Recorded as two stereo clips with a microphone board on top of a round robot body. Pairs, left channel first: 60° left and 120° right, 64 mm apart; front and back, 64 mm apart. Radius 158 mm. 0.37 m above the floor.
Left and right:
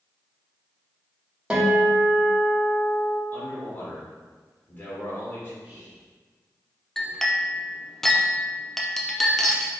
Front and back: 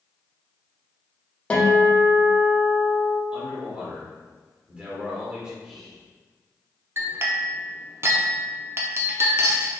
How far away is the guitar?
About 1.3 m.